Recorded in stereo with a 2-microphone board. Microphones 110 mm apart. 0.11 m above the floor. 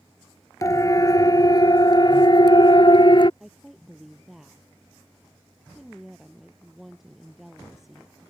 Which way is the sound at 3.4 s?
5° right (ahead or behind).